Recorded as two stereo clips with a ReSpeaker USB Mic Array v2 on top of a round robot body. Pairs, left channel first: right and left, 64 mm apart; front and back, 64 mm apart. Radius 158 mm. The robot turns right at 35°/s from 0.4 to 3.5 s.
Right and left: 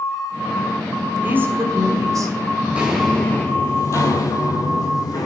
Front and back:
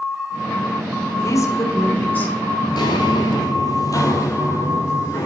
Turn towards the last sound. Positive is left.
turn(degrees=-55)